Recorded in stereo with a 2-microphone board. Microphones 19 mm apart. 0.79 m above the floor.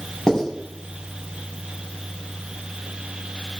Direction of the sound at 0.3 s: 40° left (ahead or behind).